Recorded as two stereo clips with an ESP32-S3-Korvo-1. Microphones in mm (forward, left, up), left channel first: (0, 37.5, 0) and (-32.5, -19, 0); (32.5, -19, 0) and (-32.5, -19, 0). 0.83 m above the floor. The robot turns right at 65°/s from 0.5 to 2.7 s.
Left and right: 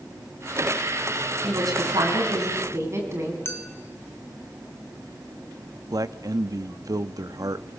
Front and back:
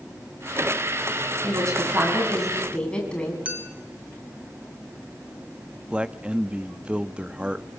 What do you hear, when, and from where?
1.4 s a woman speaking: 155° right, 7 m; by 3.4 s 75° right, 7 m
3.5 s a clink: 115° left, 2.5 m
5.9 s a man speaking: 105° right, 0.9 m